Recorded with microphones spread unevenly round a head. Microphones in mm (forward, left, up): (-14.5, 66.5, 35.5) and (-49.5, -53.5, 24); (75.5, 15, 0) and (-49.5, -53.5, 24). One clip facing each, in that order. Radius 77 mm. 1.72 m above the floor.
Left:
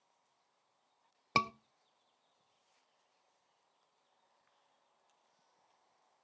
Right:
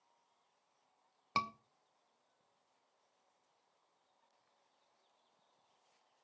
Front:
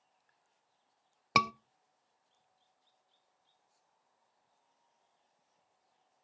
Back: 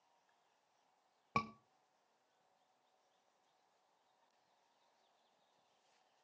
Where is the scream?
25° left, 0.6 m.